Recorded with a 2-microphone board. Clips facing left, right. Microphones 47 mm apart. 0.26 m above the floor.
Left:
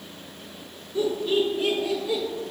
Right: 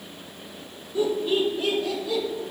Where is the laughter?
15° right (ahead or behind), 2.5 m; by 2.2 s 20° left (ahead or behind), 3.5 m.